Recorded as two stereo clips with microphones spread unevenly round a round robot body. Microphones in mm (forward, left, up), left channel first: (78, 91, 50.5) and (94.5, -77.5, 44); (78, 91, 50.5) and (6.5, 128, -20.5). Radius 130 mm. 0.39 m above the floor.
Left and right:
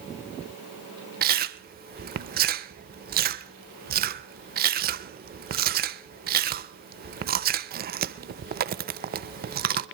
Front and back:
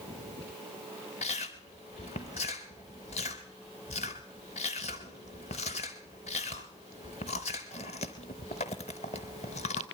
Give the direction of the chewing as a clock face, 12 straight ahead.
3 o'clock.